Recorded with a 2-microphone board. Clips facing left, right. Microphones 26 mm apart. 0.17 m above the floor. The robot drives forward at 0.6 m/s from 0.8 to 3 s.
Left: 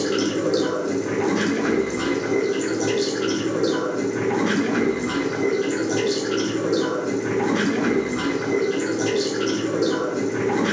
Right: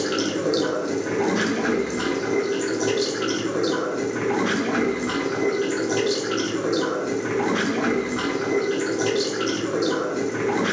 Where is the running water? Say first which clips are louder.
Left 2 dB; 20° right (ahead or behind), 1.0 m; by 10.7 s 10° right (ahead or behind), 2.5 m.